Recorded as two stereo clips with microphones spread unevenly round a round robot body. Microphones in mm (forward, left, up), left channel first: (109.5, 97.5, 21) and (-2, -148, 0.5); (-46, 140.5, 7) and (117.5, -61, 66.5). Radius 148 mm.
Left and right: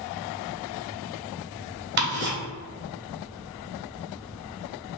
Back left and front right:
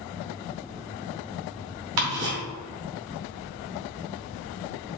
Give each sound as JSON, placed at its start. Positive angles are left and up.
{"t": 2.0, "sound": "ticking", "azimuth_deg": -65, "distance_m": 1.8}